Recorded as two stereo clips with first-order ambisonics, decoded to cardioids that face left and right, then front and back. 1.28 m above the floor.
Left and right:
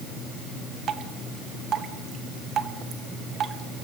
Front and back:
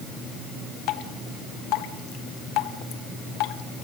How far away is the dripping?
About 1.3 m.